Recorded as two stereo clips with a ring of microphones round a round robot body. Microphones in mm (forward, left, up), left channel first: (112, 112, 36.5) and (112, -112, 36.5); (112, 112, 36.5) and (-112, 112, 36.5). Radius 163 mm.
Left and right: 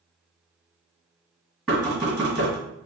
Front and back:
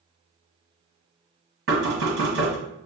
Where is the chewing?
No chewing in this recording.